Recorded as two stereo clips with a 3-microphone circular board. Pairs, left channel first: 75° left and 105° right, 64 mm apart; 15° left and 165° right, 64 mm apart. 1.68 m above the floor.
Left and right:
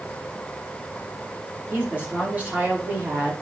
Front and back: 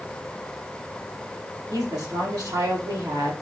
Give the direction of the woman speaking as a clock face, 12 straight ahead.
6 o'clock.